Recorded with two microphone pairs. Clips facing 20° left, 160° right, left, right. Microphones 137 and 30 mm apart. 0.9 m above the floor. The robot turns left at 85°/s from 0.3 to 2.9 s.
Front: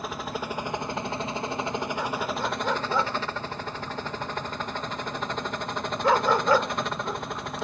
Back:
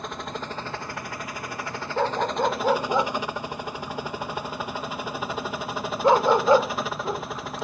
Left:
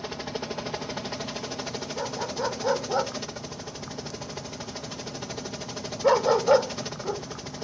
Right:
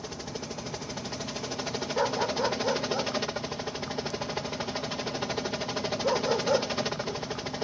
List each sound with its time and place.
0.0 s a helicopter: 100° left; by 7.6 s 75° right
2.0 s a dog barking: 140° right; by 7.2 s 140° left